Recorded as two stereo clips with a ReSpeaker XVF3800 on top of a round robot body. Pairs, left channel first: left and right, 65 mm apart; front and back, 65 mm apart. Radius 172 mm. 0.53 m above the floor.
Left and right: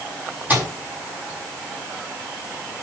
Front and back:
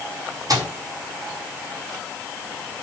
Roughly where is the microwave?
Behind right.